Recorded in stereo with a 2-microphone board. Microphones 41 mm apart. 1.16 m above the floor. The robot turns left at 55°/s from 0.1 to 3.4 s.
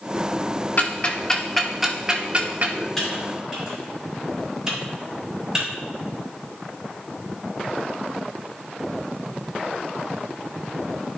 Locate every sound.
0.8 s ticking: 45° left (ahead or behind), 1.1 m; by 2.9 s 50° right (ahead or behind), 1.1 m
3.0 s typing on a keyboard: 10° left (ahead or behind), 4.5 m; by 5.7 s 15° right (ahead or behind), 4.5 m